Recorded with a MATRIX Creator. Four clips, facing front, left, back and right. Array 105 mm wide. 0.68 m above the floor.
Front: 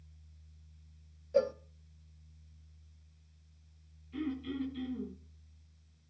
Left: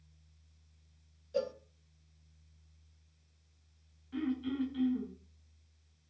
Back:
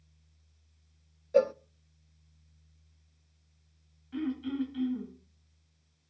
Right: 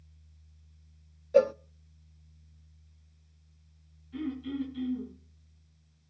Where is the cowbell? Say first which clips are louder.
Right 12 dB, back 5 dB; 115° right, 0.5 m.